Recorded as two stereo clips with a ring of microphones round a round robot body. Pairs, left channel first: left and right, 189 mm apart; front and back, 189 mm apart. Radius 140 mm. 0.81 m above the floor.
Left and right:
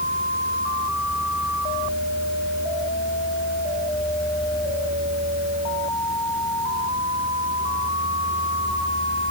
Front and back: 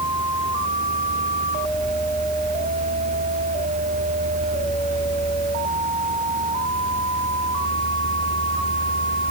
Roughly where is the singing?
I don't hear singing.